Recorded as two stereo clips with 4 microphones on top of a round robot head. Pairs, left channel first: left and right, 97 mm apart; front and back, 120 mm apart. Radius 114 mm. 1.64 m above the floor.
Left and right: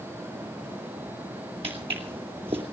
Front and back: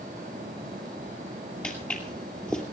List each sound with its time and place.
1.6 s footsteps: 80° right, 2 m